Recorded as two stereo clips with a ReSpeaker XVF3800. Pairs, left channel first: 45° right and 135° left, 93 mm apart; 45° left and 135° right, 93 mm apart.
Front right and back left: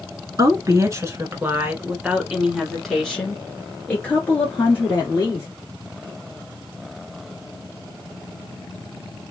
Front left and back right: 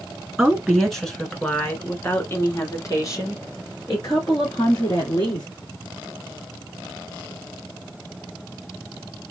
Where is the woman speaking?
145° left, 1.4 m; by 5.5 s 10° left, 2.5 m.